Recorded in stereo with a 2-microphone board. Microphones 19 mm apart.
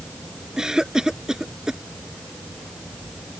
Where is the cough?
30° right (ahead or behind).